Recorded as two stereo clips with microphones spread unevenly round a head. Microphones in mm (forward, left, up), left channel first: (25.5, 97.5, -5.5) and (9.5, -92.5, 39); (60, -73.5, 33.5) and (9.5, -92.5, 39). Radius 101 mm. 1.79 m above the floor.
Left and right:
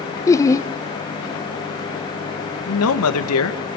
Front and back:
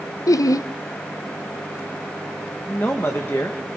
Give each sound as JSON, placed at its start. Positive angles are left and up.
{"t": 0.3, "sound": "laughter", "azimuth_deg": 10, "distance_m": 0.9}
{"t": 2.7, "sound": "a man speaking", "azimuth_deg": 95, "distance_m": 2.0}